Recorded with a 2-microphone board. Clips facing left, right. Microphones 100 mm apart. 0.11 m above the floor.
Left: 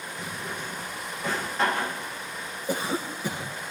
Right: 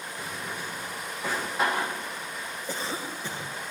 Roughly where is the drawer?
Centre.